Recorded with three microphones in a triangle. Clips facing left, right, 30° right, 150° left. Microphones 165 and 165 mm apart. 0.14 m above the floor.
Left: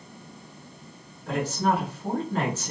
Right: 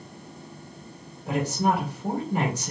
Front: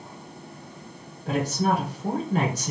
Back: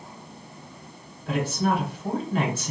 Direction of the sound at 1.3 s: 20° right.